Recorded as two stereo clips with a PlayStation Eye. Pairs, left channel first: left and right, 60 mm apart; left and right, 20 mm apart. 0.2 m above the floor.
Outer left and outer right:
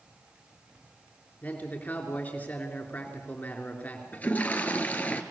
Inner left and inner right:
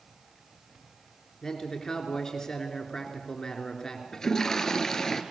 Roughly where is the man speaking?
Left.